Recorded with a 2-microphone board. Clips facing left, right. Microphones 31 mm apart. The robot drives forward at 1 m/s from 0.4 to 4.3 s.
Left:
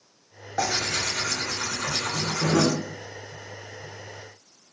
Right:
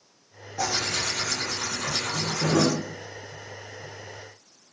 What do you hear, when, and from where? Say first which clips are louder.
0.6 s tearing paper: left 1 dB; 85° left, 5 m; by 2.7 s 70° left (ahead or behind), 5.5 m